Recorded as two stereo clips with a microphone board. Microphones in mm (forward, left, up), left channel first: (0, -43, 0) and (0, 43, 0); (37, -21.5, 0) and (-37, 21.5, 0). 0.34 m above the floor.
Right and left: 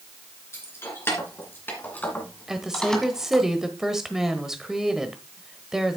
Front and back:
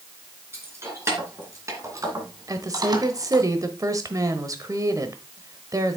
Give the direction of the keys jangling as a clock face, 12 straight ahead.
5 o'clock.